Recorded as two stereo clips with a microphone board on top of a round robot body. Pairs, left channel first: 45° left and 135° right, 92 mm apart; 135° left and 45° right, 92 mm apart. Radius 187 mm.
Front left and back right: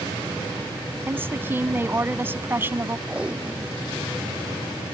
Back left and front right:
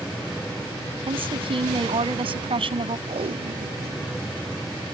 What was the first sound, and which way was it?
A woman speaking, 65° right.